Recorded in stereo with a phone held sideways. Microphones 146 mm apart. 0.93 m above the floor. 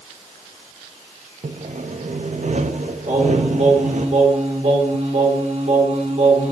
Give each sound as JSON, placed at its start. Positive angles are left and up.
{"t": 1.4, "sound": "sawing", "side_deg": -60, "distance_m": 0.5}
{"t": 3.1, "sound": "singing", "side_deg": -50, "distance_m": 1.4}